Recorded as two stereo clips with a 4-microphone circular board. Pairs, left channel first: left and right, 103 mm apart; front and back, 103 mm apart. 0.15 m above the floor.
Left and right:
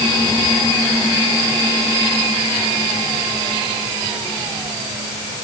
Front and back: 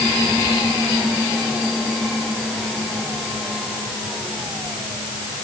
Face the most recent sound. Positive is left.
No sound to turn to.